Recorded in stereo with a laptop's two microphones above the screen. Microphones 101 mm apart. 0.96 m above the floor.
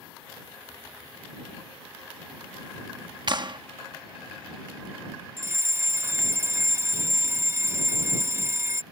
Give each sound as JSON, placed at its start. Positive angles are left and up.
{"t": 3.3, "sound": "a clap", "side_deg": -50}
{"t": 5.4, "sound": "a fire alarm", "side_deg": -25}